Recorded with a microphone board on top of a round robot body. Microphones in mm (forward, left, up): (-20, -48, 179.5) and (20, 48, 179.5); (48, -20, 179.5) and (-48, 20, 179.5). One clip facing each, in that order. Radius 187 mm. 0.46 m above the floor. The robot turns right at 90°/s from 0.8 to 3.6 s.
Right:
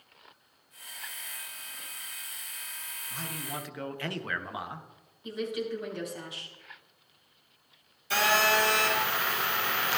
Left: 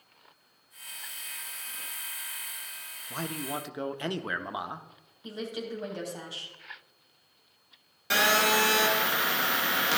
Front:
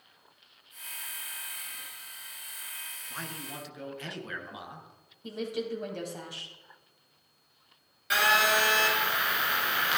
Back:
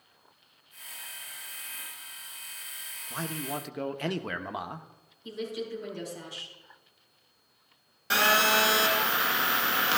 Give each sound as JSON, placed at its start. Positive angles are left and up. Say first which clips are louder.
{"t": 3.1, "sound": "a man speaking", "louder": "left 5 dB, back 7 dB", "azimuth_deg": 90, "distance_m": 1.1}
{"t": 5.2, "sound": "a woman speaking", "louder": "right 3 dB, front 2 dB", "azimuth_deg": 10, "distance_m": 3.5}
{"t": 8.1, "sound": "a phone buzzing", "louder": "even, back 1 dB", "azimuth_deg": 95, "distance_m": 1.8}